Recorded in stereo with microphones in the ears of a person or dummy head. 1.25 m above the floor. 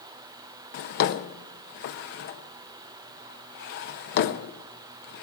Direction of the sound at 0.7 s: 45° left (ahead or behind).